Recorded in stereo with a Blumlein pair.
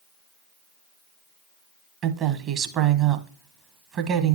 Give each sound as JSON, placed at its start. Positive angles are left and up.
{"t": 2.0, "sound": "a woman speaking", "azimuth_deg": -30, "distance_m": 1.0}